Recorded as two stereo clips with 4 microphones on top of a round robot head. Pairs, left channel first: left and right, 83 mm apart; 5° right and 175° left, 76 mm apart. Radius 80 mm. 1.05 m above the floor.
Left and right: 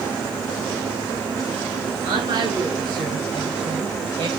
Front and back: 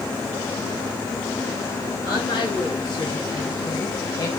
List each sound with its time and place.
2.0 s a woman speaking: 45° right, 6.5 m; by 4.3 s 60° right, 6.5 m